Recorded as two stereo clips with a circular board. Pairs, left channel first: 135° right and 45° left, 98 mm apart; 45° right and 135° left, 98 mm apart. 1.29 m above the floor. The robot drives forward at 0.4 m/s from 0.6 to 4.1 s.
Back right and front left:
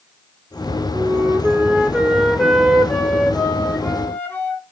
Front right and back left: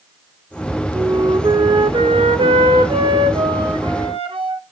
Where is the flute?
95° left, 0.7 m; by 4.6 s 155° left, 1.5 m.